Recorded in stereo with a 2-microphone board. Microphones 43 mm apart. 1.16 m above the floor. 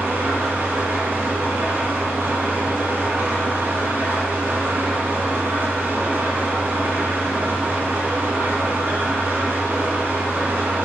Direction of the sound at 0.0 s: 60° right (ahead or behind).